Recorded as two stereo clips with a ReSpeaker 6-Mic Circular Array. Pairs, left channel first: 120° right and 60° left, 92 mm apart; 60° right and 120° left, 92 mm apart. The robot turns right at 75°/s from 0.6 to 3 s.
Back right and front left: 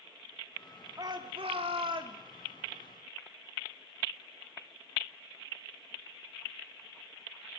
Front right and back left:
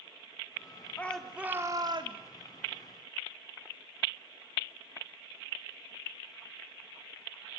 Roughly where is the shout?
Ahead.